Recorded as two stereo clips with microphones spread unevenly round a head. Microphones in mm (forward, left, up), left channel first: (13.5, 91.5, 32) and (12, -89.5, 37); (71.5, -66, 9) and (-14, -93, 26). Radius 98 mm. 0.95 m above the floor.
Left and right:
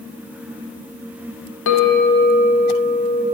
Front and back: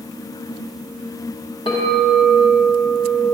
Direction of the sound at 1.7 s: 80° left.